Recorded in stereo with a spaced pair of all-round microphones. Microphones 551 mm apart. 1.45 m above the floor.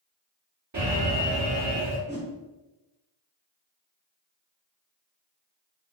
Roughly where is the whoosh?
Centre.